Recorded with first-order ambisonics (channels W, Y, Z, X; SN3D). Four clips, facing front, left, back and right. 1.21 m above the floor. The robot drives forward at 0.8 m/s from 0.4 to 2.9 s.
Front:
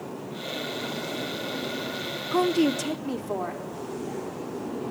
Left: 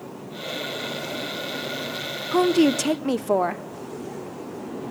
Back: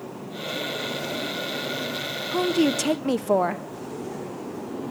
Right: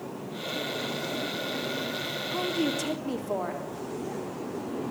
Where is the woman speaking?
65° left, 0.5 m; by 3.6 s 135° left, 0.6 m.